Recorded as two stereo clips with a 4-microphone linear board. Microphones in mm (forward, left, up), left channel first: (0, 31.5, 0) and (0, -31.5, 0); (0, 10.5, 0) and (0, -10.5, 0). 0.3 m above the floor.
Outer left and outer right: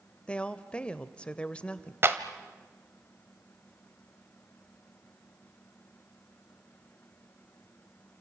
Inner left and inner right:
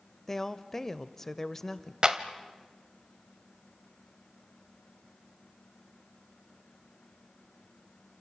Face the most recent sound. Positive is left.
turn(degrees=-40)  # may be behind; listen again after turning